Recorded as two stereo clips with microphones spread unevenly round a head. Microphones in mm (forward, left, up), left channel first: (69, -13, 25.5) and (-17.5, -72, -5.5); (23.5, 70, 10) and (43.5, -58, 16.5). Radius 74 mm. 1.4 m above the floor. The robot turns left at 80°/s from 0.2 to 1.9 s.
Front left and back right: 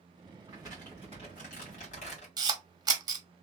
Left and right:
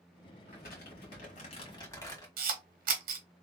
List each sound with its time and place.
0.5 s crumpling: 145° left, 1.6 m; by 2.3 s 30° left, 1.6 m
2.4 s a camera shutter: 105° right, 1.0 m